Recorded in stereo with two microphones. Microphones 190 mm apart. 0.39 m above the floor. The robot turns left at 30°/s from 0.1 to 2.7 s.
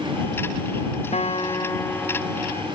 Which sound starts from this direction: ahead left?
A guitar, at 1.1 s.